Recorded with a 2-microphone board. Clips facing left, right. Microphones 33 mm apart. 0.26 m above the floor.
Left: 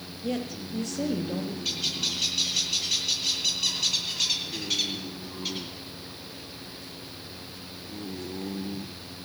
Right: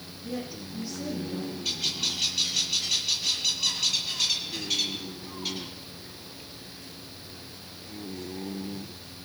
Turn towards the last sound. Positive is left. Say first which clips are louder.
# right 1 dB
turn(degrees=5)  # may be behind; listen again after turning